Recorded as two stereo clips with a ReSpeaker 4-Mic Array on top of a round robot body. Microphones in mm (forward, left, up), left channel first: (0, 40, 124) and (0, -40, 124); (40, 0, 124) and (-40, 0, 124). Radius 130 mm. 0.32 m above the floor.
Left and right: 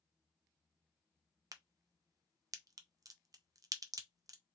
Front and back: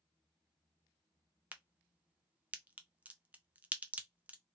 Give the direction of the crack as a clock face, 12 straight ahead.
4 o'clock.